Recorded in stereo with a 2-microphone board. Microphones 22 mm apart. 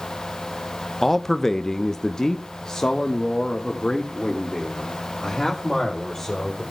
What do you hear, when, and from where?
1.0 s a man speaking: 10° left (ahead or behind), 0.7 m; by 6.6 s 20° left (ahead or behind), 3 m